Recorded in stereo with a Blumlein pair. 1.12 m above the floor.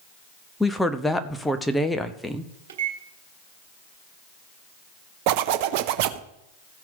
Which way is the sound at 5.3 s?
45° right.